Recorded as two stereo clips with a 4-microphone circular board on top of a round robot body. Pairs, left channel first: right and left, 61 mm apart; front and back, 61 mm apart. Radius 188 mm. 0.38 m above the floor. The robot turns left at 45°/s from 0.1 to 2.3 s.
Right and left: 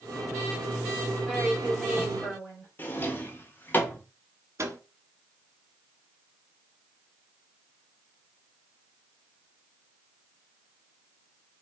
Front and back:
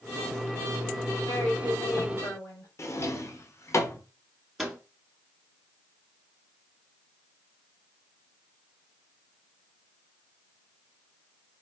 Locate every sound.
1.3 s a woman speaking: 20° left, 3 m; by 2.7 s 30° right, 3 m
2.8 s a drawer: 35° right, 1.1 m
4.6 s a microwave: 90° left, 1.5 m